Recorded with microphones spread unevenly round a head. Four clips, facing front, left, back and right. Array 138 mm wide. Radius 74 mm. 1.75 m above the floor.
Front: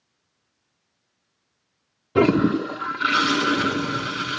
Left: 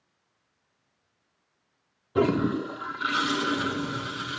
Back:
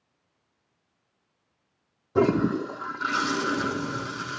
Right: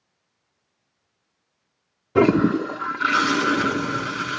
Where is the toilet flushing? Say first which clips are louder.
Right 7 dB, front 4 dB; 65° right, 0.6 m.